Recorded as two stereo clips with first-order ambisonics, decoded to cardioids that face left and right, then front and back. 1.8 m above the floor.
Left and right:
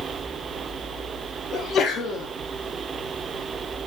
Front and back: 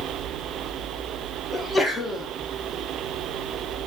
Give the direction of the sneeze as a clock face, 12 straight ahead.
10 o'clock.